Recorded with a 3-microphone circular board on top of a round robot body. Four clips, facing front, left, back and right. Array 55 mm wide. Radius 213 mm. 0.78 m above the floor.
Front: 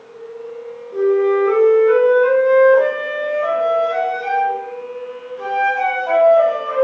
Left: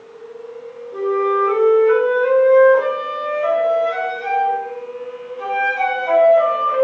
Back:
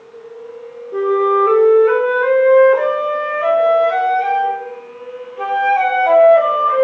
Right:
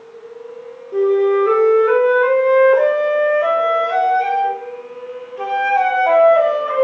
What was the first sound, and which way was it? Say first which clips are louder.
A flute: right 4 dB, back 1 dB; 140° right.